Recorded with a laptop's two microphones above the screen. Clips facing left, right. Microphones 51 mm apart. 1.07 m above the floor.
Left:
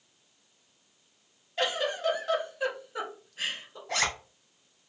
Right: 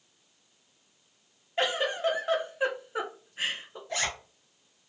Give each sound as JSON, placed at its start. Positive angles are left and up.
{"t": 1.6, "sound": "a giggle", "side_deg": -25, "distance_m": 0.7}
{"t": 3.9, "sound": "a zipper", "side_deg": 90, "distance_m": 1.2}